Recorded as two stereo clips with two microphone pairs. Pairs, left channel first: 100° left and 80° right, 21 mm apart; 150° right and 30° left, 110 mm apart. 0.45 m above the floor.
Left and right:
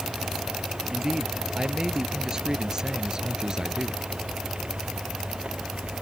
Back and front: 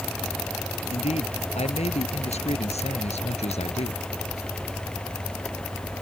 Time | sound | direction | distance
0.9 | a man speaking | 140° right | ?